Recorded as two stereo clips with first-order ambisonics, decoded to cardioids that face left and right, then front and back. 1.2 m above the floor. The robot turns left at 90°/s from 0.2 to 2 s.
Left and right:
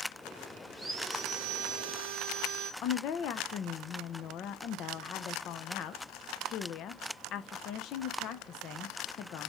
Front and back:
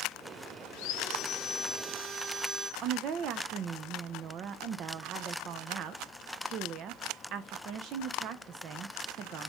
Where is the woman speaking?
135° left, 0.6 m.